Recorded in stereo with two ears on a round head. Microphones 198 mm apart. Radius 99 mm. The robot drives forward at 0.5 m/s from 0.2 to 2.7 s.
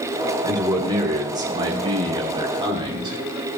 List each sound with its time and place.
0.4 s a man speaking: 15° right (ahead or behind), 5.5 m; by 3.2 s 20° right (ahead or behind), 4.5 m